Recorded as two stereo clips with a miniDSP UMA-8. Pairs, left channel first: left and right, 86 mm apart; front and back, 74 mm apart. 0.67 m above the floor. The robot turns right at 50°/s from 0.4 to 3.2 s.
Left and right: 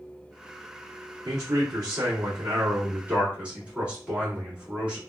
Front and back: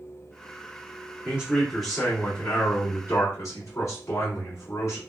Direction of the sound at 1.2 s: 115° right.